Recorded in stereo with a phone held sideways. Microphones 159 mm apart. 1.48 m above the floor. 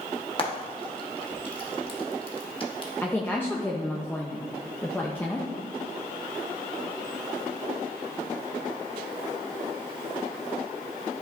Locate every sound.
0.4 s frying: 35° left (ahead or behind), 1.2 m
3.0 s a woman speaking: 10° left (ahead or behind), 0.6 m